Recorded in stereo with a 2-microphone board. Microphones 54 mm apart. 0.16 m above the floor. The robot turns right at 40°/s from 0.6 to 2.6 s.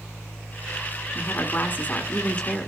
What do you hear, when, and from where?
1.1 s a woman speaking: 95° left, 1.2 m; by 2.7 s 155° left, 1.2 m